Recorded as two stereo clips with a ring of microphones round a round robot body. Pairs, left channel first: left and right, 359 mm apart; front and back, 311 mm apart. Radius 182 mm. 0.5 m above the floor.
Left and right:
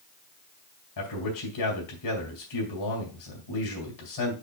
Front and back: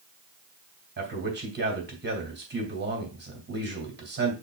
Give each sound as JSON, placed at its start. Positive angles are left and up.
{"t": 1.0, "sound": "a man speaking", "azimuth_deg": 125, "distance_m": 3.0}